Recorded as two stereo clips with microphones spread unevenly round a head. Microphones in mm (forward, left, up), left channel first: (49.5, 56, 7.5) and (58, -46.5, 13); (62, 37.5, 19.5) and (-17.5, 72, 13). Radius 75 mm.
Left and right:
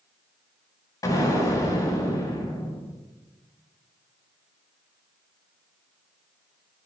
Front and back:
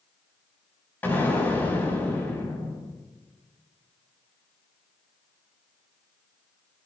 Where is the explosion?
45° left, 5 m.